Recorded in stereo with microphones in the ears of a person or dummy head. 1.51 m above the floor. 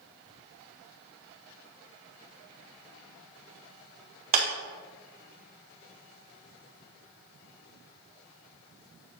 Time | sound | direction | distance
4.3 | a clap | 45° right (ahead or behind) | 1.1 m